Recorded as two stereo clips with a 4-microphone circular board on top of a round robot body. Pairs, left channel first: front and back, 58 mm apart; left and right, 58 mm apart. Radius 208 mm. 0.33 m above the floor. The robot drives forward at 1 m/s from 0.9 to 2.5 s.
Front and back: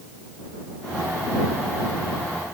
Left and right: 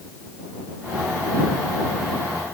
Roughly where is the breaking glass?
I don't hear breaking glass.